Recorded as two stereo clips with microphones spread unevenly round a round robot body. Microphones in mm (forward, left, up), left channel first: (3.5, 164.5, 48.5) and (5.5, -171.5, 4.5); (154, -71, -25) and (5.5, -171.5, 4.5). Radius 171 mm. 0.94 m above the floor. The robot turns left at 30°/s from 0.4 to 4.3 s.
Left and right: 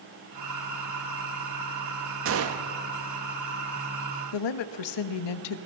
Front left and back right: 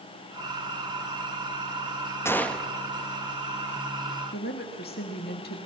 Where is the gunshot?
40° right, 1.1 m; by 2.7 s 55° right, 1.1 m.